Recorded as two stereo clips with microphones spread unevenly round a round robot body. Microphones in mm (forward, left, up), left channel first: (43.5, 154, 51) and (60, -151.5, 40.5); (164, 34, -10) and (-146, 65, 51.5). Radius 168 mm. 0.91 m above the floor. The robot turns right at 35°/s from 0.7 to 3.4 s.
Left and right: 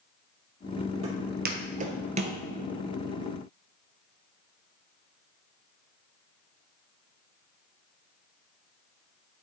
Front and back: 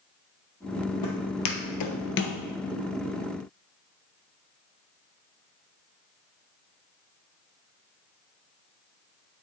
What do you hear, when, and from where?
1.0 s footsteps: 40° right, 1.9 m; by 2.4 s 75° right, 0.9 m